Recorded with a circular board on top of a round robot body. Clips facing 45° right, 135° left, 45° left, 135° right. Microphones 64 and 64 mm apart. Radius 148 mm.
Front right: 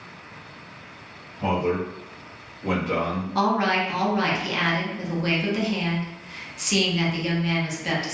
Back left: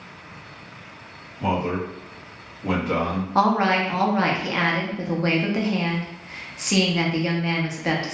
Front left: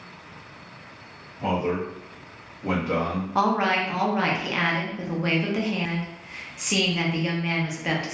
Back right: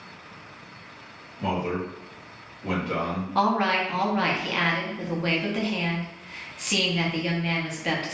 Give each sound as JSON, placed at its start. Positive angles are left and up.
{"t": 1.4, "sound": "a man speaking", "azimuth_deg": -30, "distance_m": 1.6}
{"t": 3.4, "sound": "a woman speaking", "azimuth_deg": 115, "distance_m": 0.8}